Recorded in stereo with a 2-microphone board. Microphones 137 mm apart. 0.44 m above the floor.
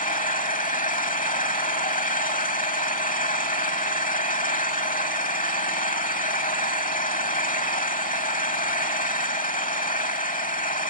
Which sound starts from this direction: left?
An engine running, at 0.0 s.